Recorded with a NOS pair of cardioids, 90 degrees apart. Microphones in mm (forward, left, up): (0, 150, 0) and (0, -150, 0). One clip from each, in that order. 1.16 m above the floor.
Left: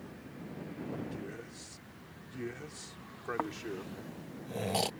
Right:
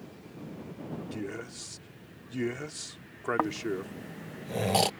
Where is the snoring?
30° right.